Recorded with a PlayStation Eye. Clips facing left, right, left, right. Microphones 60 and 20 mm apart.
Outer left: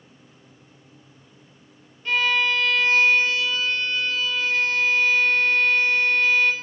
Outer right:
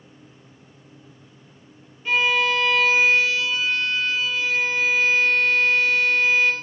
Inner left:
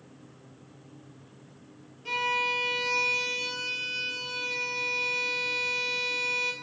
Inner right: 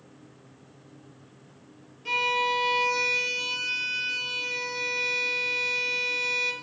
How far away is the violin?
About 1.4 m.